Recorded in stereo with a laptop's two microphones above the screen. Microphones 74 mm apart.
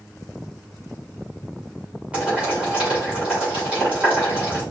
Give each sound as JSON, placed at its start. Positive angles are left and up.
{"t": 2.1, "sound": "boiling", "side_deg": -15, "distance_m": 3.0}